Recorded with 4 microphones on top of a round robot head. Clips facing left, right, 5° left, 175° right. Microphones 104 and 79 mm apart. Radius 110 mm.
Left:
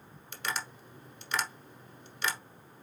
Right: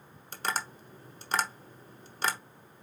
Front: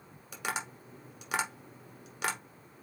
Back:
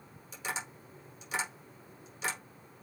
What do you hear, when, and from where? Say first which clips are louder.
0.3 s tapping: right 3 dB, front 3 dB; 35° right, 1.0 m